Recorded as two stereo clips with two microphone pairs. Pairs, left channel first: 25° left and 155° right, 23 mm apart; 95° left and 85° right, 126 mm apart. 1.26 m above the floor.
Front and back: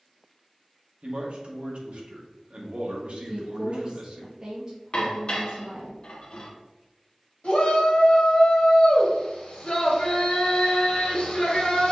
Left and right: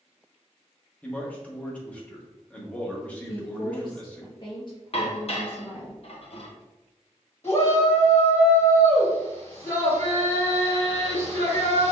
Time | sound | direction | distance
1.0 | a man speaking | 175° left | 1.3 m
3.2 | a woman speaking | 145° left | 0.9 m
4.9 | dishes clattering | 65° left | 1.0 m
7.4 | a shout | 60° left | 1.8 m